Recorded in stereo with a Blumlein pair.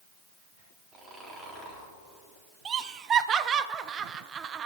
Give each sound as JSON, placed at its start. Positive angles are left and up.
{"t": 0.9, "sound": "snoring", "azimuth_deg": -20, "distance_m": 3.0}
{"t": 2.6, "sound": "laughter", "azimuth_deg": -25, "distance_m": 0.6}